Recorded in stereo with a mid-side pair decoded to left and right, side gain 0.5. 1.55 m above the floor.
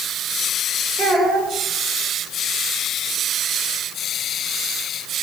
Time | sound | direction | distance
1.0 | a child speaking | 30° right | 6 m